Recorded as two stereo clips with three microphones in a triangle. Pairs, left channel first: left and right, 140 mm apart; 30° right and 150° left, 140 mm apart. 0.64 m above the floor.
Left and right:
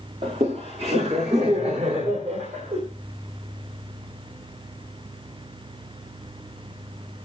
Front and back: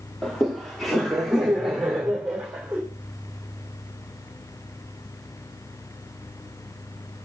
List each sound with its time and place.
0.2 s laughter: 115° right, 1.5 m; by 2.8 s 125° right, 2.5 m